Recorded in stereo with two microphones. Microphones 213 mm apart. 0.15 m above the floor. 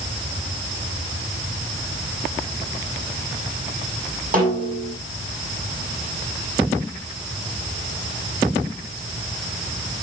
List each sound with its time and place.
4.3 s a snare drum: 40° right (ahead or behind), 7 m